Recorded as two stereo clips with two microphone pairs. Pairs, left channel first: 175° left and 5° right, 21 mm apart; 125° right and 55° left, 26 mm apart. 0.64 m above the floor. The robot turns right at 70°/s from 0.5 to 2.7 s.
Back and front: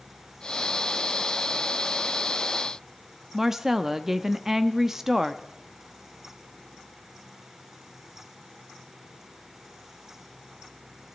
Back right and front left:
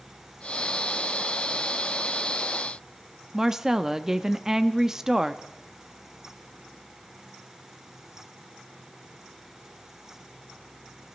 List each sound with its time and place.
3.3 s a woman speaking: 40° left, 0.6 m